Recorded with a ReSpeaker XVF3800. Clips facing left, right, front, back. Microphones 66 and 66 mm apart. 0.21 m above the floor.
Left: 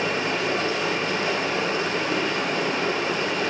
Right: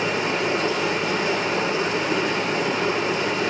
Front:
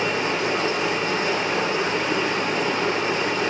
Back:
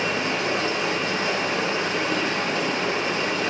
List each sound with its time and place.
0.0 s running water: 60° right, 5.5 m